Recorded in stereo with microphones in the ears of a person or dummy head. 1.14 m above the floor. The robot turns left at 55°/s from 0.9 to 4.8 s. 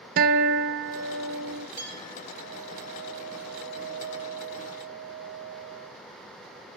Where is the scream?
I don't hear a scream.